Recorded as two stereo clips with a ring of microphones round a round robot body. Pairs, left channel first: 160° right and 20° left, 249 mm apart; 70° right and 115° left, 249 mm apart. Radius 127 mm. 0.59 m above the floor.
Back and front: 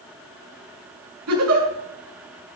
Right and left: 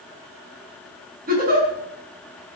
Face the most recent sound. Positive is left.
turn(degrees=55)